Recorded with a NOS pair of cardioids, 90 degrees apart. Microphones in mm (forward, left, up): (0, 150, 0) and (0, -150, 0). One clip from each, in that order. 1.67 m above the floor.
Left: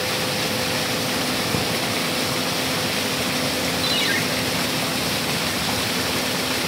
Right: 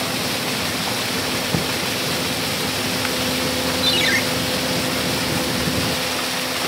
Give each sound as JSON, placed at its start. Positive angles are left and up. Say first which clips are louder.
{"t": 1.5, "sound": "a thud", "louder": "right 1 dB", "azimuth_deg": -15, "distance_m": 3.5}
{"t": 3.8, "sound": "a ringtone", "louder": "right 4 dB", "azimuth_deg": -35, "distance_m": 2.5}